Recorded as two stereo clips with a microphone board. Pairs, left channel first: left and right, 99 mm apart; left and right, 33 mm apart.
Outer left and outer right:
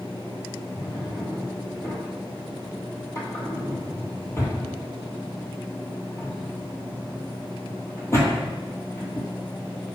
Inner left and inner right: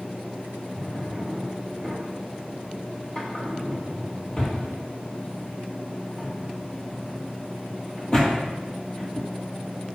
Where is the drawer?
30° left (ahead or behind), 1.3 m.